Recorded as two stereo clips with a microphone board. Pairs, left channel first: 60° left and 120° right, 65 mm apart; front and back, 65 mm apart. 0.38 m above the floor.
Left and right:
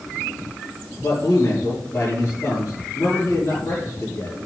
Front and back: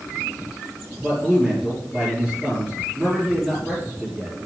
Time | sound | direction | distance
1.0 | a man speaking | 100° left | 7.5 m